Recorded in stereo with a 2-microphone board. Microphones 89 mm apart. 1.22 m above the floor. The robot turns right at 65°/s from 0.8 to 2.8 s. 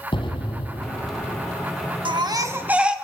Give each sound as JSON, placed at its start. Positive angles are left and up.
{"t": 0.1, "sound": "an explosion", "azimuth_deg": 115, "distance_m": 3.5}
{"t": 2.0, "sound": "a baby crying", "azimuth_deg": -60, "distance_m": 1.7}